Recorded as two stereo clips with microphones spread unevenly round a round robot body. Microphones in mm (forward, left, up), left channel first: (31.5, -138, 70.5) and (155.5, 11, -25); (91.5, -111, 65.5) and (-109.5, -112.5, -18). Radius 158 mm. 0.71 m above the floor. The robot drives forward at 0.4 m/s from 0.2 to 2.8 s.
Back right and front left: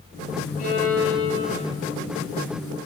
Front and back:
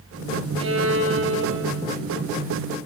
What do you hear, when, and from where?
0.6 s a violin: 145° left, 5.5 m; by 1.8 s 150° left, 5.5 m